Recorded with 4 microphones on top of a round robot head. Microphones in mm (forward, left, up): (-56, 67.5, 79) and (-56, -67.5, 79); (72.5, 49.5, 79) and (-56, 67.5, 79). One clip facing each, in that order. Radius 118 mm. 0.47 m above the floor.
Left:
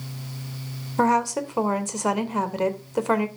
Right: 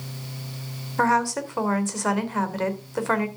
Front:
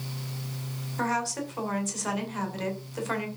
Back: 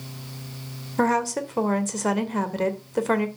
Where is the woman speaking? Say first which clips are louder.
Left 1 dB, back 7 dB; 160° left, 2.5 m.